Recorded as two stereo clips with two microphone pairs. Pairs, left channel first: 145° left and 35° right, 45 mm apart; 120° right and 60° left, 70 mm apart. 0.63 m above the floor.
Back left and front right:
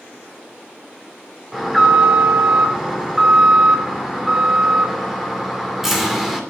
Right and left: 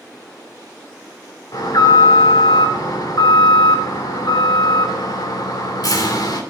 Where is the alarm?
120° right, 2.5 m.